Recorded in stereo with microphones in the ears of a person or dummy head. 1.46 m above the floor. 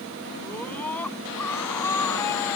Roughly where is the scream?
Centre.